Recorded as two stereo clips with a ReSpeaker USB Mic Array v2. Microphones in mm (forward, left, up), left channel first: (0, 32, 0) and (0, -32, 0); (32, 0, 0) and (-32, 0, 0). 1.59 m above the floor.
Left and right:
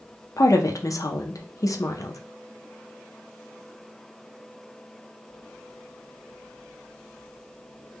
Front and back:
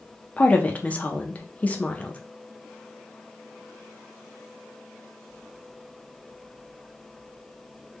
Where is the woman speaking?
65° left, 0.6 m.